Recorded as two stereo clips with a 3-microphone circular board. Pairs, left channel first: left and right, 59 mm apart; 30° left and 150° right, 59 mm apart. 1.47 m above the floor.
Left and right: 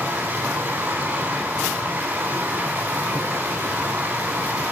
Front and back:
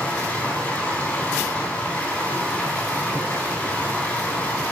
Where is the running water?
35° right, 4 m.